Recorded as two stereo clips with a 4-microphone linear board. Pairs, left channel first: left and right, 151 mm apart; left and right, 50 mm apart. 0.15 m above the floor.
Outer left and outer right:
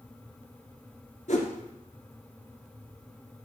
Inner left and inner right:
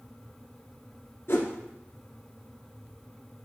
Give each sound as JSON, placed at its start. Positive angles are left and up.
{"t": 1.3, "sound": "a whoosh", "side_deg": 60, "distance_m": 1.6}